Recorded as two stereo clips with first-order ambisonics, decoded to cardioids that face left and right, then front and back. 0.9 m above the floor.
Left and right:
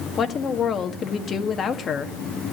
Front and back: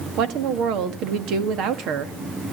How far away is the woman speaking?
About 1.8 m.